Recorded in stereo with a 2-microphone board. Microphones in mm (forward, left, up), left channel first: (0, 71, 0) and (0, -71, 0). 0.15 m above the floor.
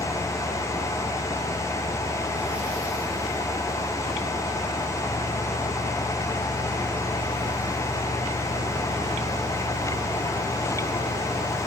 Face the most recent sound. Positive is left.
No sound to turn to.